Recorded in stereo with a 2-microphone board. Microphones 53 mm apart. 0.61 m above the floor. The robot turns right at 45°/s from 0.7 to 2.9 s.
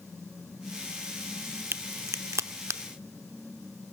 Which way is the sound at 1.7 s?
50° right (ahead or behind).